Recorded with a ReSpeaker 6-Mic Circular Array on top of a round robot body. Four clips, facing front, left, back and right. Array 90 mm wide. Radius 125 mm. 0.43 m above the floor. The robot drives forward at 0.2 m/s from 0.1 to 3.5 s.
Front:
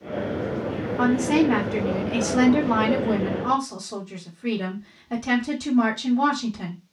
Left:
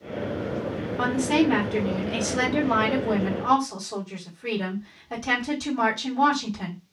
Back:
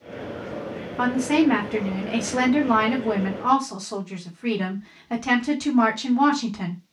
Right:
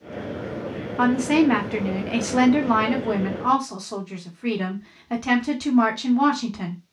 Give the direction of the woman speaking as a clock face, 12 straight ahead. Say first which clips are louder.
Right 4 dB, even; 3 o'clock.